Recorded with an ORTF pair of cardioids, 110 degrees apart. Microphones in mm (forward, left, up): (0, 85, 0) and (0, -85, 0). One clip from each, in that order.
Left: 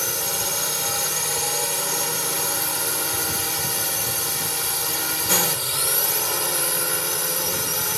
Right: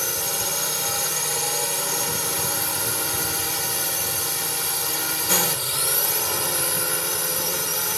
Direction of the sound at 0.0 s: Straight ahead.